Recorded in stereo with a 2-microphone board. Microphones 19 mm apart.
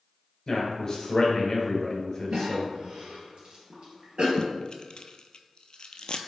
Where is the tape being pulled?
50° left (ahead or behind), 0.5 m.